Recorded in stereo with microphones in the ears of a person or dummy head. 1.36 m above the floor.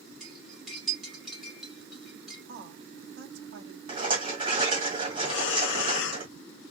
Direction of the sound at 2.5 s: 80° right.